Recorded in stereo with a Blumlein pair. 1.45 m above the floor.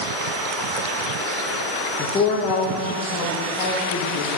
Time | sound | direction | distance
2.0 | a woman speaking | 20° left | 0.7 m